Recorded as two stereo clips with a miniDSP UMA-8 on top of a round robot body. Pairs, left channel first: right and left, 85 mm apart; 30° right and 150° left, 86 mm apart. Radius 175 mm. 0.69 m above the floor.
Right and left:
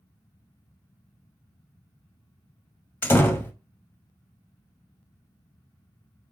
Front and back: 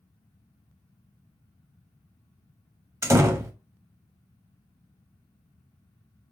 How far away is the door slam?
About 1.0 m.